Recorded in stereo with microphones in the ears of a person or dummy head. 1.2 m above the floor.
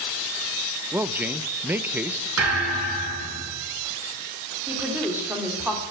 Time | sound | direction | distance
0.9 | a man speaking | 10° right (ahead or behind) | 0.6 m
2.4 | a thud | 85° right | 7.5 m
4.7 | a woman speaking | 5° right (ahead or behind) | 3 m